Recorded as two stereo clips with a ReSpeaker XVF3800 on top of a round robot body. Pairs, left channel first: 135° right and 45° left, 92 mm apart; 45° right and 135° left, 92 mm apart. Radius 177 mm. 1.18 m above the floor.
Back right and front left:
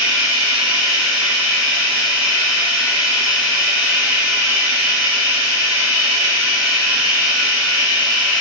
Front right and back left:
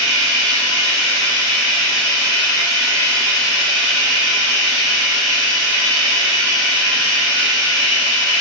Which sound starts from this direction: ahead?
Running water, at 0.0 s.